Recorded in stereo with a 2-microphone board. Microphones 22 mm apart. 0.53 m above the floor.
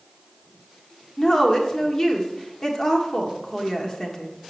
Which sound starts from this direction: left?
A woman speaking, at 1.2 s.